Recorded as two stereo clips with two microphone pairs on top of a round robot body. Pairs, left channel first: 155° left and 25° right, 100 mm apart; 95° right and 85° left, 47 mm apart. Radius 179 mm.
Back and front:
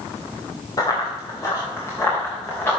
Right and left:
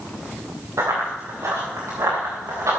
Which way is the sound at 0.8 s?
105° left.